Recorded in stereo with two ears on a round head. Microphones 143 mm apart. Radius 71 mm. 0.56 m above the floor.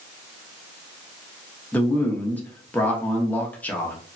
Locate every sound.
1.7 s a man speaking: 10° left (ahead or behind), 0.6 m